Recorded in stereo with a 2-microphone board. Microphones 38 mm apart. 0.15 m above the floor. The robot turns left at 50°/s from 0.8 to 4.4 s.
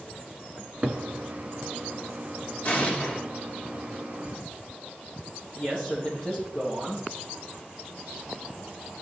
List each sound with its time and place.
0.6 s a cupboard door: 30° right (ahead or behind), 0.8 m; by 1.0 s 40° right (ahead or behind), 0.8 m
2.6 s an explosion: 40° left (ahead or behind), 2.5 m; by 3.2 s 20° left (ahead or behind), 2.5 m
5.5 s a man speaking: 35° left (ahead or behind), 4 m